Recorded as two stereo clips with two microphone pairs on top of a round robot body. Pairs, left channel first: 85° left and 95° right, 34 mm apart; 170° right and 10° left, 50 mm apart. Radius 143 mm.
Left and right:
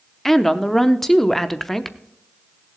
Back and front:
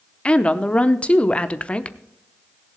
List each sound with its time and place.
0.2 s a woman speaking: 165° left, 1.1 m